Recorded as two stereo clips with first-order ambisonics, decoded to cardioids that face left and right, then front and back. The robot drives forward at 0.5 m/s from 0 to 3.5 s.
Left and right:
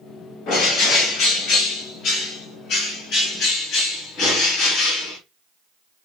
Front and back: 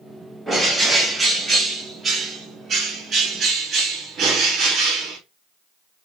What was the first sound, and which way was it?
A bird, 90° left.